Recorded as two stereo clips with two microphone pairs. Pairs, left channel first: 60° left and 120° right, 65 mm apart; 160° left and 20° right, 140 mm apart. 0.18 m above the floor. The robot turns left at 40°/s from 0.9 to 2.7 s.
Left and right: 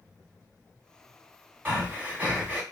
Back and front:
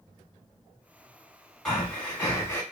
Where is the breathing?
115° right, 1.4 m; by 2.6 s 155° right, 1.4 m.